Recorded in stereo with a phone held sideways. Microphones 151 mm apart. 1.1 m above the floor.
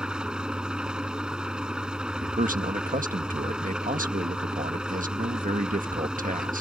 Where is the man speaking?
65° right (ahead or behind).